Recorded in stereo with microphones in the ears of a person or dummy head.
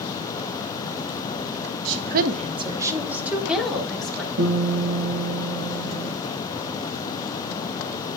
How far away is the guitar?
About 3.5 m.